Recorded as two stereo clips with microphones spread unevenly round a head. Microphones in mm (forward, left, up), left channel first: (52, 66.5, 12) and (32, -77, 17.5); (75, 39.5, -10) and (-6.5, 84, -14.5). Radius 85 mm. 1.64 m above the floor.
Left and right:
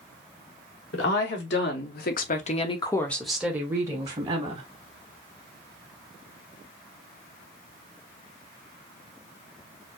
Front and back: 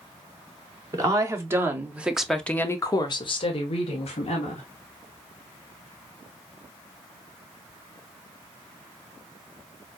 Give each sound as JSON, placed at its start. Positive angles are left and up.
{"t": 0.9, "sound": "a woman speaking", "azimuth_deg": 95, "distance_m": 1.9}